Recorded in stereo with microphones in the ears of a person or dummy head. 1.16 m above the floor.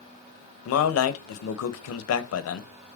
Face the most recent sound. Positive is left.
turn(degrees=75)  # may be behind; listen again after turning